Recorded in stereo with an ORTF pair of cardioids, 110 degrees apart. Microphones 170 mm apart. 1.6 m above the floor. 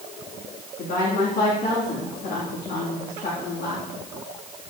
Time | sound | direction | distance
0.8 | a woman speaking | 70° left | 3 m